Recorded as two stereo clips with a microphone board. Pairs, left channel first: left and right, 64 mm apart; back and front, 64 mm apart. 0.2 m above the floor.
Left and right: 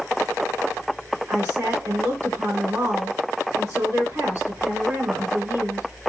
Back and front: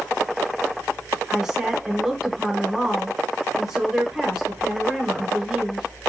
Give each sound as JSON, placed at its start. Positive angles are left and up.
{"t": 1.3, "sound": "a woman speaking", "azimuth_deg": -75, "distance_m": 1.4}